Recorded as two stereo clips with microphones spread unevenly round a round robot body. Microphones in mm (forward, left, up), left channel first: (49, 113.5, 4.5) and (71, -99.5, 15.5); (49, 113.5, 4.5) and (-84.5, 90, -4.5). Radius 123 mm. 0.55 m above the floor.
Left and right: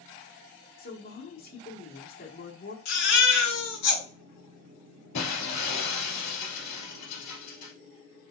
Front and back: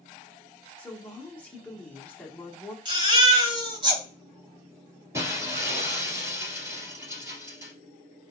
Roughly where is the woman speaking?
Left.